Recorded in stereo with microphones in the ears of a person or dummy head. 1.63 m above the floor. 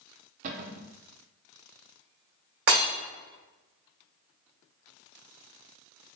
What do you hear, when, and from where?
0.4 s a cupboard door: 40° right (ahead or behind), 0.5 m
2.7 s breaking glass: 55° right (ahead or behind), 1.9 m